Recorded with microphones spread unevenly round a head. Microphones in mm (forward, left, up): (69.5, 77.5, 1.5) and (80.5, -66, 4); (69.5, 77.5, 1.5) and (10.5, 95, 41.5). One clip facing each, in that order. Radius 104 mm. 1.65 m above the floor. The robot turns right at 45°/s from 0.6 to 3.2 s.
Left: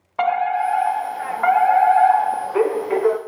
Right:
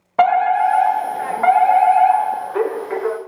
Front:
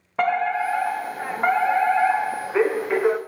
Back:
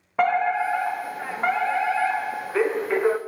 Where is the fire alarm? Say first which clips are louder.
Right 5 dB, back 1 dB; 75° right, 0.7 m; by 3.2 s 40° left, 0.7 m.